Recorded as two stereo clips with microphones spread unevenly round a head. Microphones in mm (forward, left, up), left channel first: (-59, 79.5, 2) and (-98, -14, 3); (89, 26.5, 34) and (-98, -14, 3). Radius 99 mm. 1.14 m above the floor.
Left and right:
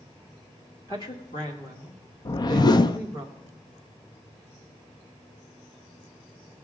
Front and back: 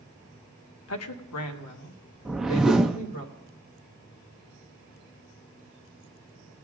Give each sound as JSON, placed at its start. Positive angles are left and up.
{"t": 0.9, "sound": "a woman speaking", "azimuth_deg": -5, "distance_m": 0.9}
{"t": 2.2, "sound": "a whoosh", "azimuth_deg": 95, "distance_m": 0.6}